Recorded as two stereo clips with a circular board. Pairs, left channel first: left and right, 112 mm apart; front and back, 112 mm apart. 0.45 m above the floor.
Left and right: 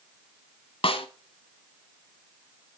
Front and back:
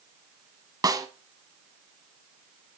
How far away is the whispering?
I don't hear whispering.